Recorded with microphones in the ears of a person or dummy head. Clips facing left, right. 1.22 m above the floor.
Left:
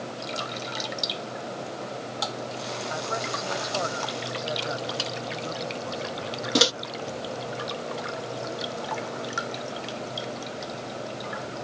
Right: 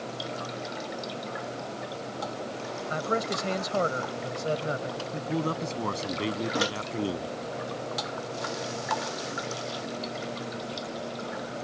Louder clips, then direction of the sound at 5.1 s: Right 3 dB; 75° right (ahead or behind).